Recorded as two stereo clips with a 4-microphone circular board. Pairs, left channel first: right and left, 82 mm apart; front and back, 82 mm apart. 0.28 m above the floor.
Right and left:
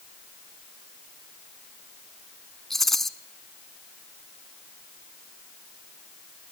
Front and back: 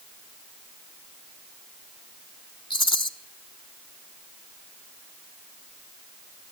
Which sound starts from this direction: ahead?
A rattle, at 2.7 s.